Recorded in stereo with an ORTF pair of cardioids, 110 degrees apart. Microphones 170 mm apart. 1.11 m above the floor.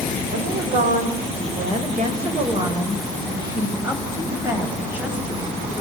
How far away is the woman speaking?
About 4 m.